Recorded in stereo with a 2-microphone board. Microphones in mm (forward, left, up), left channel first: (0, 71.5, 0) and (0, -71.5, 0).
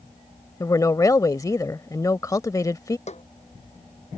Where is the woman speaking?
25° left (ahead or behind).